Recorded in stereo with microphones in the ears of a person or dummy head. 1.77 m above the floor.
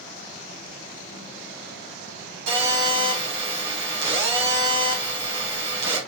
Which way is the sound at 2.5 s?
80° right.